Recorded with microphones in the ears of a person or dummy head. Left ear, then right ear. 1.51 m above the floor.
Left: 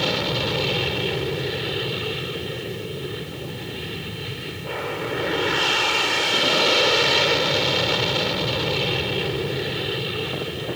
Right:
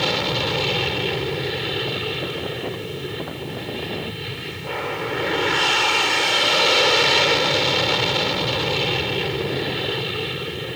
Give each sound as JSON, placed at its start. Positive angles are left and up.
{"t": 0.0, "sound": "an aircraft", "side_deg": -20}